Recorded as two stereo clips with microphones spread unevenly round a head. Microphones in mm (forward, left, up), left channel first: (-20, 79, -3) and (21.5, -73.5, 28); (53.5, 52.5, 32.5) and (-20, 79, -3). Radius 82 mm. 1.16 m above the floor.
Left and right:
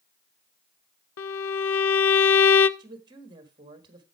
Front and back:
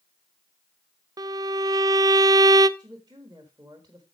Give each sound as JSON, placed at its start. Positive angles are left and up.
{"t": 1.2, "sound": "a violin", "azimuth_deg": 110, "distance_m": 0.6}
{"t": 2.8, "sound": "a woman speaking", "azimuth_deg": -140, "distance_m": 1.6}